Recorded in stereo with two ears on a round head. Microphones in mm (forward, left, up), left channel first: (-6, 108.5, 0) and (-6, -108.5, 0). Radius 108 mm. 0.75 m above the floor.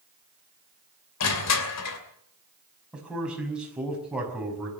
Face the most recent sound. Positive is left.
turn(degrees=-5)  # may be behind; listen again after turning